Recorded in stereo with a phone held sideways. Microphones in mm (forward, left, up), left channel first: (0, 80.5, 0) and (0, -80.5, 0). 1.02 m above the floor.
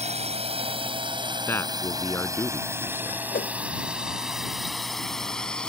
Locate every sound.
0.0 s a drone: 40° right (ahead or behind); by 5.7 s 5° left (ahead or behind)
1.5 s a man speaking: 15° left (ahead or behind)
3.3 s a whoosh: 60° left (ahead or behind)